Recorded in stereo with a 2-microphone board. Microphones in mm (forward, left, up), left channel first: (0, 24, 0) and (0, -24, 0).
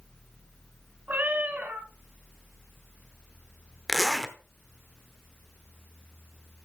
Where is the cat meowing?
40° right (ahead or behind), 1.5 m.